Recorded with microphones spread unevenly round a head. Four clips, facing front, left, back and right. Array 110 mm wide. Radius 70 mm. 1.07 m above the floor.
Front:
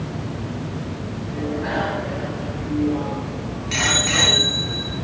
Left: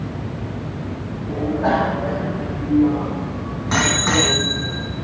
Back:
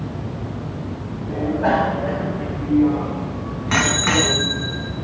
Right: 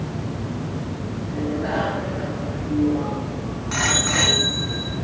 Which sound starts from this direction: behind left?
A bicycle bell, at 1.3 s.